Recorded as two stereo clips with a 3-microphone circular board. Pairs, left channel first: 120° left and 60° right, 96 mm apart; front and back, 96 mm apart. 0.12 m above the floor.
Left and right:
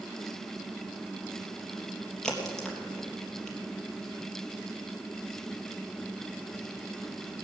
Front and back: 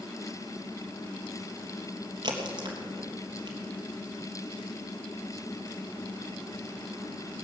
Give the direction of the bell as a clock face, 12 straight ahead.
No bell in this recording.